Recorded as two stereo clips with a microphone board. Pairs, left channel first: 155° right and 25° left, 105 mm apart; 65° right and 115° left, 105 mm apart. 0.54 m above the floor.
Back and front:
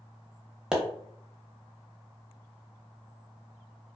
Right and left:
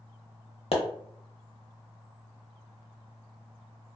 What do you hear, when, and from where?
0.7 s a pop: 60° right, 0.7 m